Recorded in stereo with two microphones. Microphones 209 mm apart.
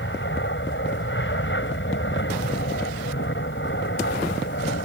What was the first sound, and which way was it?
An aircraft, 65° left (ahead or behind).